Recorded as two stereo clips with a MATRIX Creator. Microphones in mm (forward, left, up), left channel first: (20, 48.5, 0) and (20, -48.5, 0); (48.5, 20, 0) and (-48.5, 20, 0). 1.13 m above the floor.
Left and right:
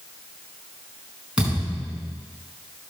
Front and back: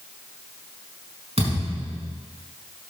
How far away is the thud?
About 5 m.